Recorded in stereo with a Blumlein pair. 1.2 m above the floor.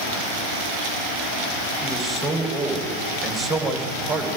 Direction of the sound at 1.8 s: 10° right.